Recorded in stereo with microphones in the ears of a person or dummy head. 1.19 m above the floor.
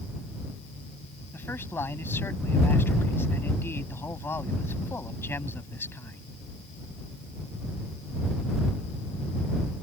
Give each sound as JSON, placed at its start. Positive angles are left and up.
{"t": 1.3, "sound": "a man speaking", "side_deg": 10}